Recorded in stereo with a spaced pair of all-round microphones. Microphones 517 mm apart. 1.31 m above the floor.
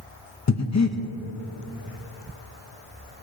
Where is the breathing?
35° left (ahead or behind), 0.6 m.